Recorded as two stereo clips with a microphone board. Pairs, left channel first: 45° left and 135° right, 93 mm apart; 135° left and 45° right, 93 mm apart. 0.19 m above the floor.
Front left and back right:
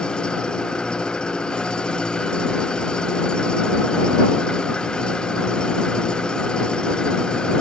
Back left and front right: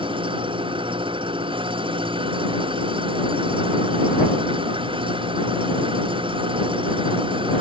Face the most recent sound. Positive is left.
turn(degrees=-35)